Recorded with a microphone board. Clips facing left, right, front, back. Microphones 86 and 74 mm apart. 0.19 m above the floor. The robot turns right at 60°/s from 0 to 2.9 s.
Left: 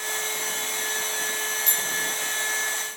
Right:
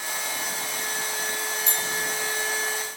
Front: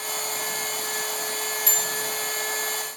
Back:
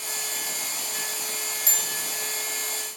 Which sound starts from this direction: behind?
A bell, at 1.7 s.